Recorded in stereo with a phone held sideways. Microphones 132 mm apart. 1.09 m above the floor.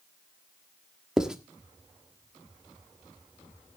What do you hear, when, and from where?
1.2 s writing: 5° right (ahead or behind), 1.4 m